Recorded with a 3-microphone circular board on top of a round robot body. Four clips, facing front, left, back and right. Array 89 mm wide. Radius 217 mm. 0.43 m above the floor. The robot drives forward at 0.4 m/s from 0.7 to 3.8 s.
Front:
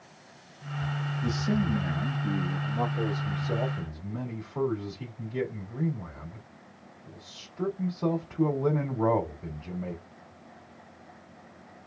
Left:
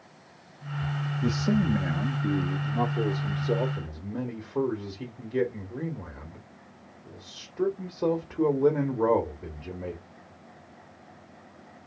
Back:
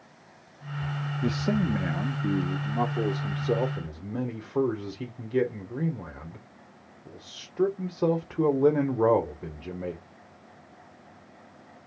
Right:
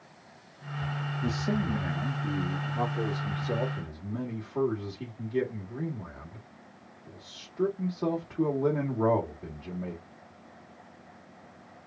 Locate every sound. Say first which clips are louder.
1.2 s a man speaking: left 5 dB, back 2 dB; 170° left, 1.1 m; by 10.0 s 175° left, 1.9 m